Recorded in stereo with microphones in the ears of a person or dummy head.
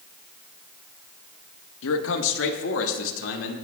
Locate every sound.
1.8 s a man speaking: 80° left, 1.2 m; by 3.5 s 75° left (ahead or behind), 2 m